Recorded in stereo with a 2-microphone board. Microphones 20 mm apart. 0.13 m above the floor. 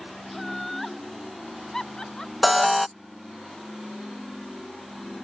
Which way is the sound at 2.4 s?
Centre (ahead or behind).